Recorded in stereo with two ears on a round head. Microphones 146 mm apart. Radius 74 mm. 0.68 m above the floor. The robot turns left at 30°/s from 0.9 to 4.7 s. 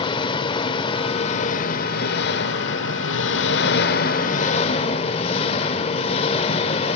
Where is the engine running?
150° left, 1.7 m; by 7.0 s 35° left, 1.7 m.